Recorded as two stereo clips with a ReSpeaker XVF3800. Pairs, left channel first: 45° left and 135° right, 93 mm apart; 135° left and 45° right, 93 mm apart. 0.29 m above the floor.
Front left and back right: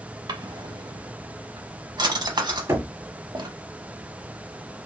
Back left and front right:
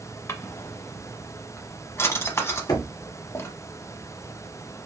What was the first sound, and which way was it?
A drawer, 170° right.